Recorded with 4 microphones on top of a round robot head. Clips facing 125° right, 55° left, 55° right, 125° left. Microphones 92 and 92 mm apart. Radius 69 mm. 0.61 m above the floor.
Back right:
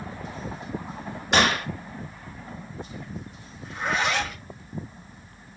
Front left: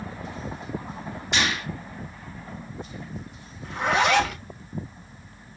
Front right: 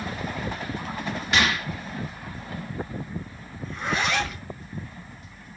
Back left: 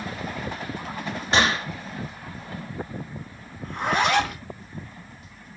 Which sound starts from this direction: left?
A zipper, at 3.6 s.